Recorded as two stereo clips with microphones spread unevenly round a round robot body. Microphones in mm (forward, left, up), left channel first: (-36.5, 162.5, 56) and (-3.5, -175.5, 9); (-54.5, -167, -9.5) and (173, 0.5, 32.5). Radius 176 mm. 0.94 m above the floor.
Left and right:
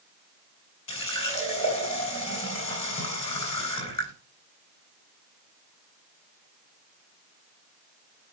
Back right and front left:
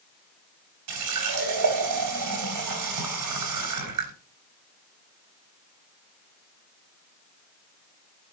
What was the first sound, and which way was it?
A running tap, 20° left.